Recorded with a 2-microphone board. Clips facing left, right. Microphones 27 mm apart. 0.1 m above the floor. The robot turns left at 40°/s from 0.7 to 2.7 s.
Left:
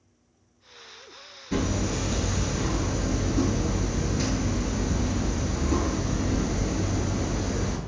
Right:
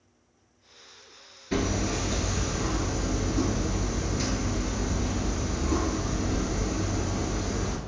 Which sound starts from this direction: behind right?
Hammering, at 1.5 s.